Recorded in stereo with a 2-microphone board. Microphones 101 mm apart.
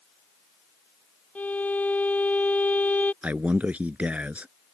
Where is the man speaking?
15° right (ahead or behind).